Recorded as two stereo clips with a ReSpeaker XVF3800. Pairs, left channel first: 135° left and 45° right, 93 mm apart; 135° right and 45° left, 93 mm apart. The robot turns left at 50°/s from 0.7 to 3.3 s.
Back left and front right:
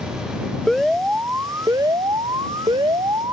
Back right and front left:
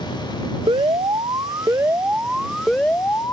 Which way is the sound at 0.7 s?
50° left.